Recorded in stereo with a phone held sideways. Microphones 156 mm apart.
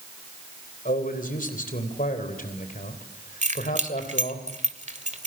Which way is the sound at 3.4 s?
50° right (ahead or behind).